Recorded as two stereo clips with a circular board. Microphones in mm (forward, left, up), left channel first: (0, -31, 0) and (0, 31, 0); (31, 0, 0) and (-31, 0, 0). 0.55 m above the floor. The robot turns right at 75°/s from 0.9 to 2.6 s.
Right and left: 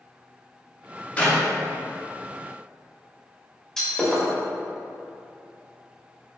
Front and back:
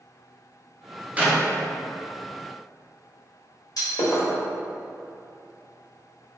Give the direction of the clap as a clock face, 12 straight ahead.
5 o'clock.